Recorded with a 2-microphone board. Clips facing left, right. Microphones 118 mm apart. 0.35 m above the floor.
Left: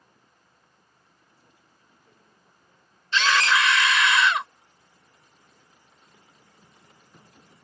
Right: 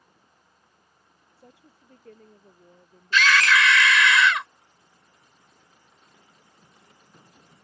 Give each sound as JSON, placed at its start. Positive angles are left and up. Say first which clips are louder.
{"t": 1.4, "sound": "a woman speaking", "louder": "right 13 dB", "side_deg": -75}
{"t": 3.1, "sound": "a scream", "louder": "right 1 dB", "side_deg": 25}